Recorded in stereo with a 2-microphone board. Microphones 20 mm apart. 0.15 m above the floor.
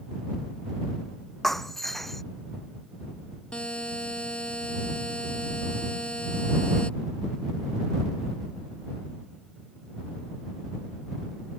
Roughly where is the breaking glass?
Centre.